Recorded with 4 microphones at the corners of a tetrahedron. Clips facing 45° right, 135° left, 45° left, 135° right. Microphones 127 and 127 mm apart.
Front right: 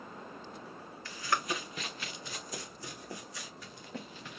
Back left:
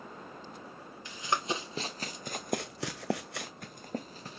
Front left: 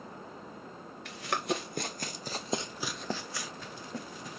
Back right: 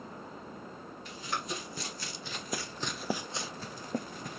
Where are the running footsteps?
65° left, 1.5 m; by 4.4 s 170° right, 1.3 m.